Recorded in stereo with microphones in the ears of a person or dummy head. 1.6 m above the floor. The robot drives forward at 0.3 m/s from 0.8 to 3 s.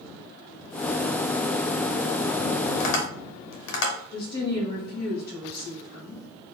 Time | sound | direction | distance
2.8 | tapping | 80° left | 0.8 m
4.1 | a woman speaking | 45° left (ahead or behind) | 0.7 m